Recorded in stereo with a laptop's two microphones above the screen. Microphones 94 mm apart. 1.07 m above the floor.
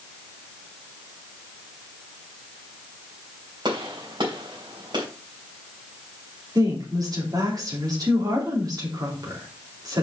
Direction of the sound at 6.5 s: 45° right (ahead or behind).